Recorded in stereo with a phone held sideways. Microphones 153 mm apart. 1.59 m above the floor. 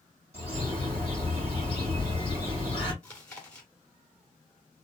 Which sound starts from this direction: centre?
Chewing, at 3.0 s.